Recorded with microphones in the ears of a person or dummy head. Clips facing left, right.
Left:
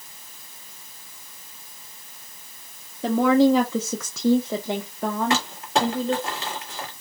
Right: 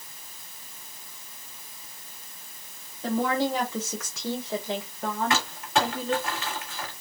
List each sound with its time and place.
3.0 s a woman speaking: 60° left (ahead or behind), 0.9 m; by 6.3 s 20° left (ahead or behind), 1.5 m
5.3 s crumpling: 30° left (ahead or behind), 2 m